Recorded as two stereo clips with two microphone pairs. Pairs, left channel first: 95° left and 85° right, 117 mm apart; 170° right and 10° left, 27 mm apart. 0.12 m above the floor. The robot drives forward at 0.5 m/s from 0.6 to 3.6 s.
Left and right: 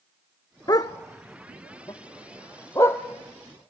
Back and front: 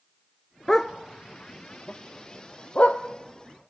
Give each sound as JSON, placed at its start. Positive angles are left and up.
{"t": 0.7, "sound": "a dog barking", "azimuth_deg": 125, "distance_m": 0.7}